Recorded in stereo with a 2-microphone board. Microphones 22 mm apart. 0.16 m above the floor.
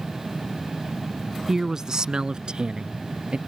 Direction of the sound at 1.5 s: 20° right (ahead or behind).